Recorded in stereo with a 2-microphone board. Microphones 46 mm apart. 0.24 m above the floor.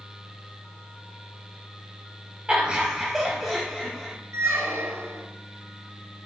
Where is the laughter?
25° right (ahead or behind), 1.1 m; by 4.1 s 15° left (ahead or behind), 1.4 m.